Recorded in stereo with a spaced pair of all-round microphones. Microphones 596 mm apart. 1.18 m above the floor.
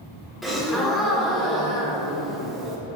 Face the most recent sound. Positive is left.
turn(degrees=0)  # may be behind; listen again after turning